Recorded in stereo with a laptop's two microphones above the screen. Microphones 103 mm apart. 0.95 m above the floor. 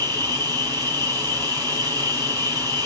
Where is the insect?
40° right (ahead or behind), 1.3 m.